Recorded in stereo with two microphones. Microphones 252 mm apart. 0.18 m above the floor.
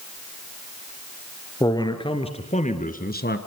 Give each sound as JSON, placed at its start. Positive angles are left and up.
{"t": 1.6, "sound": "a man speaking", "side_deg": 15, "distance_m": 3.5}